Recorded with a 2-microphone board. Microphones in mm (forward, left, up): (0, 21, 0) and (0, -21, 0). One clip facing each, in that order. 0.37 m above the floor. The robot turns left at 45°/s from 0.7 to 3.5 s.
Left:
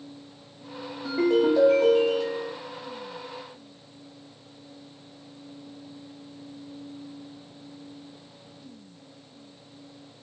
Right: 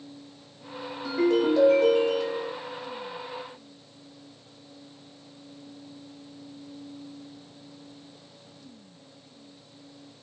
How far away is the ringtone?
About 0.9 m.